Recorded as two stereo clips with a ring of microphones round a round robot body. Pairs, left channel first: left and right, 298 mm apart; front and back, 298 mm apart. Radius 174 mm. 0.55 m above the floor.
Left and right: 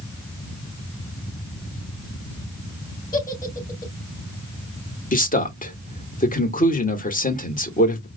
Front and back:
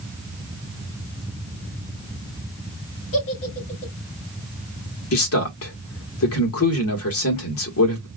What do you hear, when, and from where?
3.1 s a giggle: 30° left, 3 m
5.1 s a man speaking: 30° left, 1.8 m